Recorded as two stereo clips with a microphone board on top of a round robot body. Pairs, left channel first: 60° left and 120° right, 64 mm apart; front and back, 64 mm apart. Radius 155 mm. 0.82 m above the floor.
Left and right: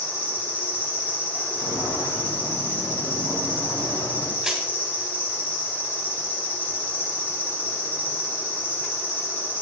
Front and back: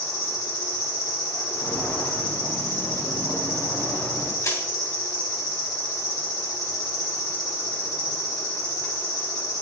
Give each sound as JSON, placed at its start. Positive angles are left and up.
{"t": 0.0, "sound": "an insect", "azimuth_deg": 0, "distance_m": 3.5}
{"t": 1.5, "sound": "footsteps", "azimuth_deg": 35, "distance_m": 3.5}
{"t": 4.4, "sound": "crushing", "azimuth_deg": -35, "distance_m": 3.0}